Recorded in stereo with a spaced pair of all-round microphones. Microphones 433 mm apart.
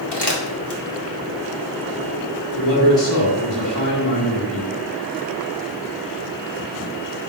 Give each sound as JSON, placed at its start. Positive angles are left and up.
{"t": 0.1, "sound": "crumpling", "side_deg": 65, "distance_m": 2.0}
{"t": 2.6, "sound": "a man speaking", "side_deg": 80, "distance_m": 2.5}